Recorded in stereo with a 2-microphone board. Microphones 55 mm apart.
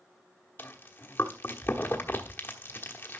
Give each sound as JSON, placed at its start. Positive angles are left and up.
{"t": 0.6, "sound": "chewing", "side_deg": 40, "distance_m": 1.1}